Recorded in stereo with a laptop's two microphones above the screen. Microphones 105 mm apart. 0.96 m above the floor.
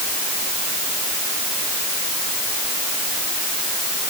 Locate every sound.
Only background noise.